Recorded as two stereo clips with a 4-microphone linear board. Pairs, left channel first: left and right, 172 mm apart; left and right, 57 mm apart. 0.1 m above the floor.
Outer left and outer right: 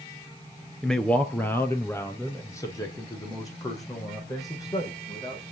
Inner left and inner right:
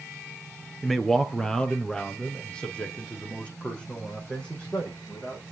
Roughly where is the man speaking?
Centre.